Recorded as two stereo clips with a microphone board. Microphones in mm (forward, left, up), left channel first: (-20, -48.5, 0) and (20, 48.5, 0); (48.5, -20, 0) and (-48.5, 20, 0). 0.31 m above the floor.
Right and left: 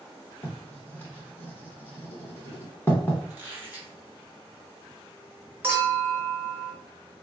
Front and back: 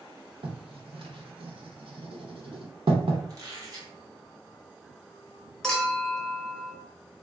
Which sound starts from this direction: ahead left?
A clink, at 5.6 s.